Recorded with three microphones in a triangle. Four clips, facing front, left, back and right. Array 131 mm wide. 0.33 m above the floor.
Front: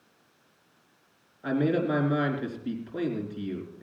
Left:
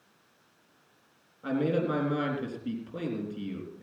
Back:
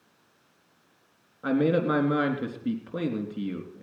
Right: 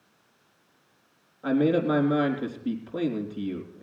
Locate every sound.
1.4 s a man speaking: 165° right, 3.5 m